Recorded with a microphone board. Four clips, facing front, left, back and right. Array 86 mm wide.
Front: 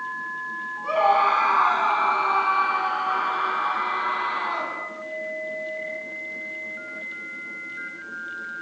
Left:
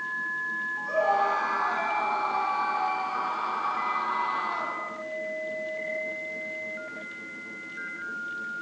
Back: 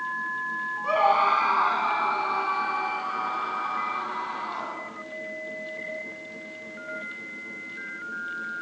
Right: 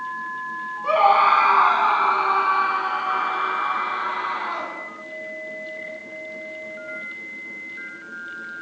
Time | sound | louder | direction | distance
0.8 | a scream | right 9 dB, front 2 dB | 95° right | 3.5 m